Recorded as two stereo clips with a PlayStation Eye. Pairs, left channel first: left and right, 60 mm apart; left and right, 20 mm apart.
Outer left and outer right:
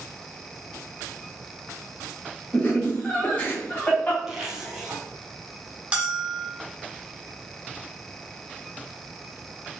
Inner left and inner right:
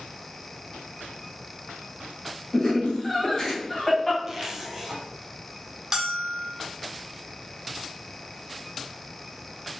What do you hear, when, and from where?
2.5 s laughter: 30° left (ahead or behind), 1.3 m
4.3 s a zipper: 15° right (ahead or behind), 1.0 m
5.9 s a bell: 20° right (ahead or behind), 1.0 m